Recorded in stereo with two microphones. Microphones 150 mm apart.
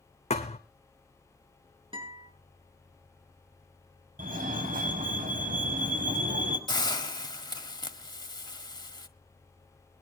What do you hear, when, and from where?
0.3 s a thud: 40° left (ahead or behind), 2 m
1.9 s a guitar: 35° right (ahead or behind), 7 m
4.2 s a fire alarm: 60° right (ahead or behind), 5.5 m
6.7 s a hiss: 30° left (ahead or behind), 1.4 m